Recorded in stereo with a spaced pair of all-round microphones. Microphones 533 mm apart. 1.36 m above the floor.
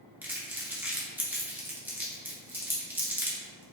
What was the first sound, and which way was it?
Crumpling, 5° right (ahead or behind).